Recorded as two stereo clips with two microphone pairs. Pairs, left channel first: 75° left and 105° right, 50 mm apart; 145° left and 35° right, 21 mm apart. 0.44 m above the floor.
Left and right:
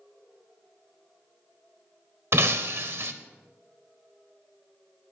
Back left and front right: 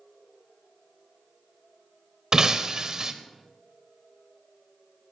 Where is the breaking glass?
90° right, 0.7 m.